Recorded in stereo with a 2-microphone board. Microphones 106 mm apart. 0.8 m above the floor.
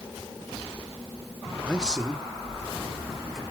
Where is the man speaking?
10° right (ahead or behind), 1.4 m; by 3.4 s centre (ahead or behind), 3.5 m.